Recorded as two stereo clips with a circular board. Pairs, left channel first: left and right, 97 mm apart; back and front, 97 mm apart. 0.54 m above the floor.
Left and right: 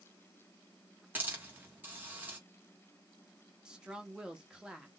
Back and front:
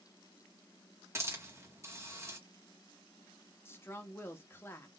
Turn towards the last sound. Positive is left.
turn(degrees=-160)